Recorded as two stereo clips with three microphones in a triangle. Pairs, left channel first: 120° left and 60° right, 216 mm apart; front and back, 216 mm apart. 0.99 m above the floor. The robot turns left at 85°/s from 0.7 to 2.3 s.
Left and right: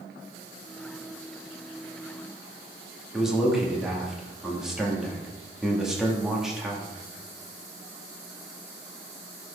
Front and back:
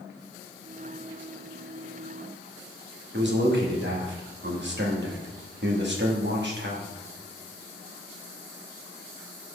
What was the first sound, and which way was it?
A man speaking, 150° right.